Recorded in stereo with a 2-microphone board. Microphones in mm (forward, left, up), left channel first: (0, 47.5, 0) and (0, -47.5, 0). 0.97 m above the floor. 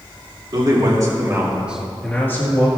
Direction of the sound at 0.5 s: 50° right (ahead or behind).